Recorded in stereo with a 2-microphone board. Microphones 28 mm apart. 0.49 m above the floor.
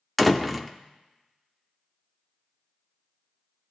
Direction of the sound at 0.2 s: Centre (ahead or behind).